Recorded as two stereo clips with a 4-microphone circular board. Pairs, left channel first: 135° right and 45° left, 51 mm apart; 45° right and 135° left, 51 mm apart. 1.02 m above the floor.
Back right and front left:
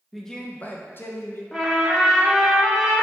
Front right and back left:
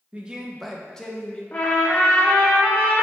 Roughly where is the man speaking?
Behind left.